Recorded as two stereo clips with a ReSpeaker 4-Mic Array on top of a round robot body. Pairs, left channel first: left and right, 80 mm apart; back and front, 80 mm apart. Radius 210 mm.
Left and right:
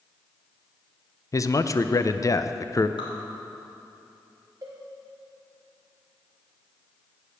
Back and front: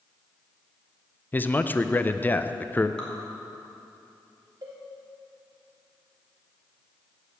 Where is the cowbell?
35° right, 0.8 m.